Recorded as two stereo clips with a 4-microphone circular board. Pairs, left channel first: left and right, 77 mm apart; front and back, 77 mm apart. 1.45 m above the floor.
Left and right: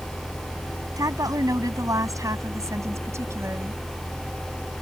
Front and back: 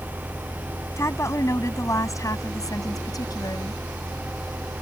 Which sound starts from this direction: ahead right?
A woman speaking, at 1.0 s.